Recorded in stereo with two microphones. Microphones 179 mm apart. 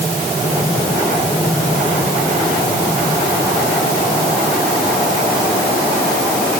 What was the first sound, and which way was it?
Only background noise.